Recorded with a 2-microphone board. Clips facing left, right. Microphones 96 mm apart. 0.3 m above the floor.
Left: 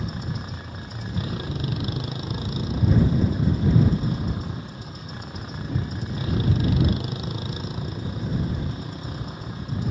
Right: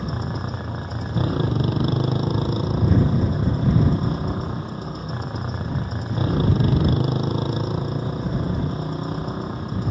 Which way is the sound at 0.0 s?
40° right (ahead or behind).